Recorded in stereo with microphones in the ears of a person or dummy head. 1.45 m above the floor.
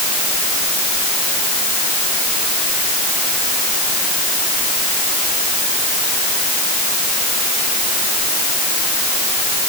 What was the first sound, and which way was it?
Only background noise.